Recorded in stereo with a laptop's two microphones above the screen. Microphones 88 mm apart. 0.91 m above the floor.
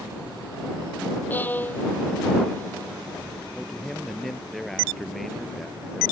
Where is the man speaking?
Centre (ahead or behind).